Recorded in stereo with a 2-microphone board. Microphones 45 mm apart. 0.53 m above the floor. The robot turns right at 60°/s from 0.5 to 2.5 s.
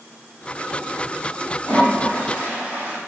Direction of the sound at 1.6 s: 120° right.